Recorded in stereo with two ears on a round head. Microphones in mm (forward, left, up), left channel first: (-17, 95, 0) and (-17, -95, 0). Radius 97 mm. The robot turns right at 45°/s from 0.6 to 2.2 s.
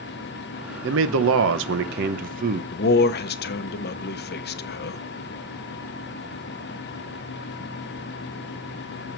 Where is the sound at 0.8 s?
105° right, 0.9 m; by 2.6 s 45° right, 0.9 m.